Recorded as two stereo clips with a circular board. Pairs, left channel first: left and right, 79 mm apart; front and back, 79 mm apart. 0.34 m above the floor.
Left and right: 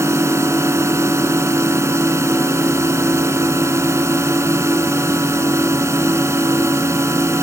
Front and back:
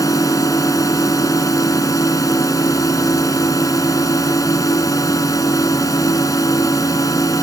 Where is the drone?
40° right.